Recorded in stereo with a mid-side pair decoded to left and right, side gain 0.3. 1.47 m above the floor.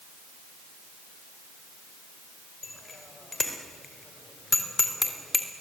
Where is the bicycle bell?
45° left, 5 m; by 5.5 s 25° left, 3 m.